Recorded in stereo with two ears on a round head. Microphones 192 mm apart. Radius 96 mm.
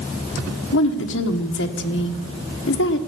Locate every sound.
0.7 s a woman speaking: 60° left (ahead or behind), 1.3 m